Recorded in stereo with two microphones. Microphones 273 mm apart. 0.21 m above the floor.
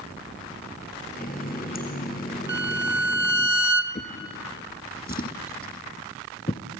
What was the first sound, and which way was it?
A running tap, 35° left (ahead or behind).